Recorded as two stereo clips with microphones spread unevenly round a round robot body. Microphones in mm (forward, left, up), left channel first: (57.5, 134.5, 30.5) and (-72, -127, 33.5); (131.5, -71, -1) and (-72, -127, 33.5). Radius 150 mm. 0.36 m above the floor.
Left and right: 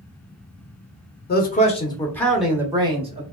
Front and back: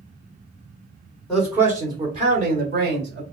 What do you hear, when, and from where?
1.3 s a man speaking: 90° left, 1.0 m; by 3.2 s 175° right, 1.1 m